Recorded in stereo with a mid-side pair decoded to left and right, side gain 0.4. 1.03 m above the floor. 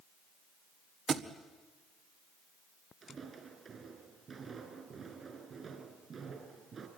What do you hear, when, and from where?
1.1 s a thud: 55° right, 1.6 m
3.0 s footsteps: 50° right, 6 m